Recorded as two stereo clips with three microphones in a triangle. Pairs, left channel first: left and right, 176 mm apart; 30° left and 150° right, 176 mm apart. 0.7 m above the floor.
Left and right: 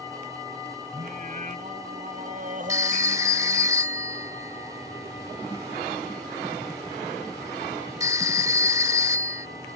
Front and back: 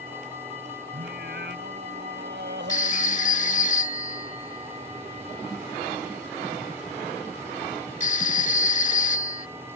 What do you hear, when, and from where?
0.9 s singing: 135° right
2.7 s a phone ringing: 20° right